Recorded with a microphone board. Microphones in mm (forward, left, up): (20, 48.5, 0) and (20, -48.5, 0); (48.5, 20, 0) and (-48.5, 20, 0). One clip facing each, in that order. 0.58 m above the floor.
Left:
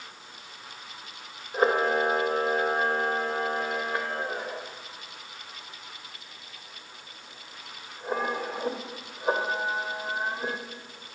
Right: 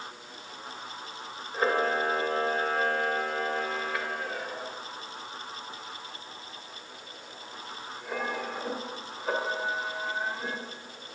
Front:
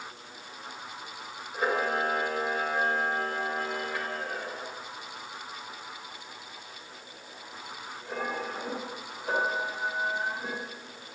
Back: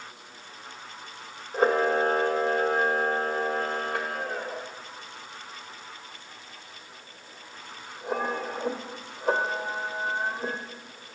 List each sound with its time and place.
1.5 s a camera shutter: 150° left, 1.5 m